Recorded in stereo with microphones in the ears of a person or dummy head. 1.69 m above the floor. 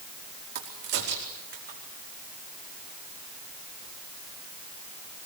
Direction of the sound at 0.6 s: 55° right (ahead or behind).